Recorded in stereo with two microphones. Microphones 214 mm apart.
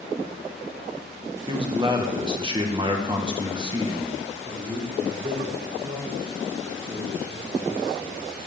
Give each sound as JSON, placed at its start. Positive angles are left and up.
{"t": 1.5, "sound": "a man speaking", "side_deg": -25, "distance_m": 1.6}
{"t": 4.5, "sound": "a man speaking", "side_deg": -40, "distance_m": 3.0}